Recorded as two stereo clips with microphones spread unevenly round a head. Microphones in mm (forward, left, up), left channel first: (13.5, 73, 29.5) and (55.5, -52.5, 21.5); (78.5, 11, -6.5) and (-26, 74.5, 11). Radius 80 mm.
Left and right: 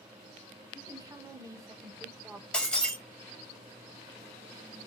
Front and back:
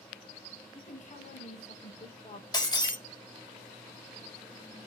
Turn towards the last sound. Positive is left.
turn(degrees=25)